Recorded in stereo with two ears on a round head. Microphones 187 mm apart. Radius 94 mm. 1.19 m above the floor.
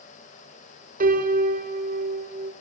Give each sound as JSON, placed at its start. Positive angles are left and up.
{"t": 1.0, "sound": "a piano", "side_deg": -45, "distance_m": 3.5}